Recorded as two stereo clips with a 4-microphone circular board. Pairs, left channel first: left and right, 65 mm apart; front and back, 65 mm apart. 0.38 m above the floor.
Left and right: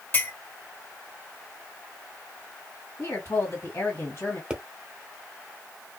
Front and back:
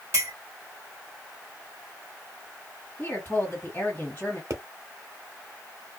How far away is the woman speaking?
About 1.9 m.